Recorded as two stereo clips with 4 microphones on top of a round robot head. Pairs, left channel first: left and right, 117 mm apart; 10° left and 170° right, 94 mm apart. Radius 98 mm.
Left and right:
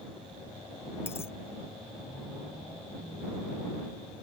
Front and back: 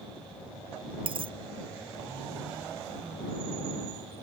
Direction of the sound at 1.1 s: 165° left.